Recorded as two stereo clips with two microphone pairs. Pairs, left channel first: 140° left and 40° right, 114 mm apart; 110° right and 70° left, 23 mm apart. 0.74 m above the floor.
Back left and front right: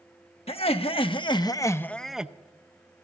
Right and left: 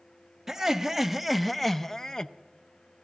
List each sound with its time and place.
0.5 s laughter: 145° left, 1.1 m; by 2.3 s 110° right, 0.5 m